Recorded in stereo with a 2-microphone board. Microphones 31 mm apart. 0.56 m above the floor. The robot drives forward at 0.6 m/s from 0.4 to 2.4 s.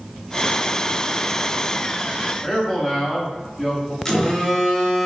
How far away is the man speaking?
About 0.8 m.